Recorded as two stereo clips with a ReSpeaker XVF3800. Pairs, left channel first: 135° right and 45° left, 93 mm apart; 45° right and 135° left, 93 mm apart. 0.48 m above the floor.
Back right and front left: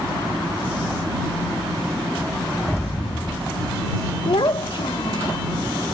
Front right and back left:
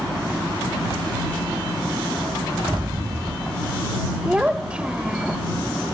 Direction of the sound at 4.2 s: 145° right.